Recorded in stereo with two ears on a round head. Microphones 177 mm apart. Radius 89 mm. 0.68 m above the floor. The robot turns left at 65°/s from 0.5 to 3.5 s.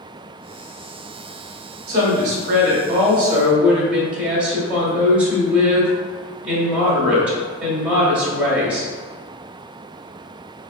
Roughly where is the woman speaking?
Ahead right.